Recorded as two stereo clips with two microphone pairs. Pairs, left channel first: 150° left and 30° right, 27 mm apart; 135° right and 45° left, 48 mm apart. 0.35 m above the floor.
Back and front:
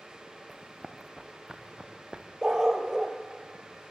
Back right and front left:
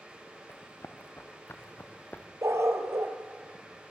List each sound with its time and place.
0.5 s running footsteps: 110° right, 2.5 m; by 2.3 s 85° right, 3 m
2.4 s a dog barking: 35° left, 2.5 m